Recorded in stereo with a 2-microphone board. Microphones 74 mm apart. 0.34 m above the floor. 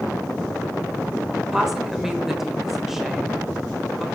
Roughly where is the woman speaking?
Centre.